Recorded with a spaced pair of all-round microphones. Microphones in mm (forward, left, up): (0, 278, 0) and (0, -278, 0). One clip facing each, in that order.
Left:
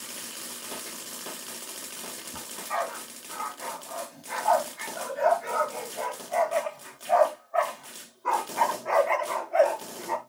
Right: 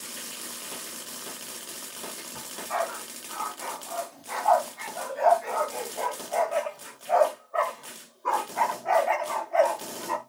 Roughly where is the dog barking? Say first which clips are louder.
Right 2 dB; left.